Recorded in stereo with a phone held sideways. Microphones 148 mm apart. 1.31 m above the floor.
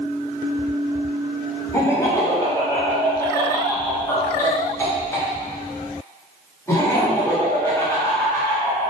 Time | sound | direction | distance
1.7 | laughter | 20° left (ahead or behind) | 1.2 m